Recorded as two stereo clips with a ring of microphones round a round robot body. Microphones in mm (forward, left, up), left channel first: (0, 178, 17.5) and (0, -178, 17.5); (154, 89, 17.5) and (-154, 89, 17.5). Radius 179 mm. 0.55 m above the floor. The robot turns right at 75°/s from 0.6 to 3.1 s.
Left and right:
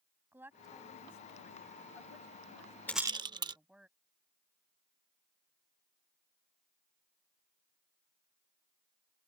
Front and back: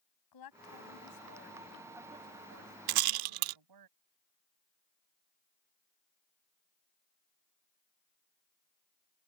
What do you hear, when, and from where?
0.3 s a woman speaking: 5° right; by 3.9 s straight behind
2.9 s a rattle: 175° left; by 3.6 s 170° right